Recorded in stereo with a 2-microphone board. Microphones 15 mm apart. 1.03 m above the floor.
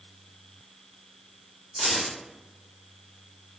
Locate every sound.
1.8 s keys jangling: 20° right (ahead or behind), 1.4 m